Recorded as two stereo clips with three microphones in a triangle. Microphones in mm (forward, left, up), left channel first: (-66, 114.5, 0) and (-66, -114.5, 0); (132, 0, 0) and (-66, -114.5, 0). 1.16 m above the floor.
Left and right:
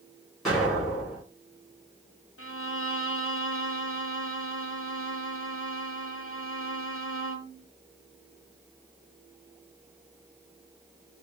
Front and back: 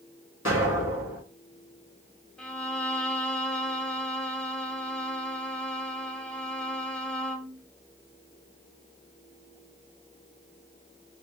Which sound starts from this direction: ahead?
An explosion, at 0.5 s.